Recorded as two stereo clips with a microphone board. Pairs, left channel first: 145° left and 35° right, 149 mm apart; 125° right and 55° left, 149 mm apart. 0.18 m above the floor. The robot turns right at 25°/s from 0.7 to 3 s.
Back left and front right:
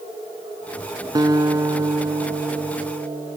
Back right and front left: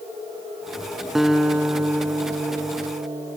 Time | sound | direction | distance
1.1 | a guitar | 30° right | 0.8 m